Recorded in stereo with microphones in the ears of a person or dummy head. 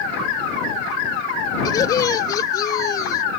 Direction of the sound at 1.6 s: 20° left (ahead or behind).